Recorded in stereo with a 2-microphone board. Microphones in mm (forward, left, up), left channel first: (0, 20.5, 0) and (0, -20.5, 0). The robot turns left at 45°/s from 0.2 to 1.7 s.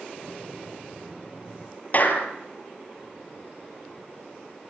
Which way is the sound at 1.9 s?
45° left (ahead or behind).